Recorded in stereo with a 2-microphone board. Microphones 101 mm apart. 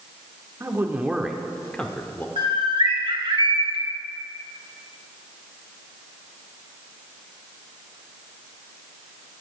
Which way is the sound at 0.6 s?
25° right (ahead or behind).